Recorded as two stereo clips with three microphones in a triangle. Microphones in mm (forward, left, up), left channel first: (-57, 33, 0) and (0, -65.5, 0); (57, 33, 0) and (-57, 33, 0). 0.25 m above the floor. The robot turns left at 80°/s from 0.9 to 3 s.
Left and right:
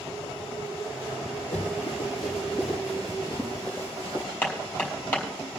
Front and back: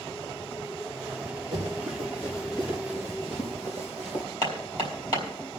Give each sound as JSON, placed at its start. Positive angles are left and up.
{"t": 1.5, "sound": "running footsteps", "azimuth_deg": 130, "distance_m": 7.0}
{"t": 4.4, "sound": "hammering", "azimuth_deg": 45, "distance_m": 4.0}